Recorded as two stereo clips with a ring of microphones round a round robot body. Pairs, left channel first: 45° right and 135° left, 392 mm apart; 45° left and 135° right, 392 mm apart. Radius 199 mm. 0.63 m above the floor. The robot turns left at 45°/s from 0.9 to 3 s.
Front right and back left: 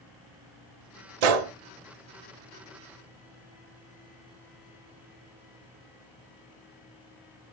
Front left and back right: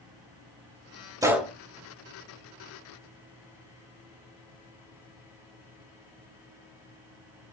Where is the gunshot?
145° left, 1.0 m; by 1.5 s 130° left, 1.0 m.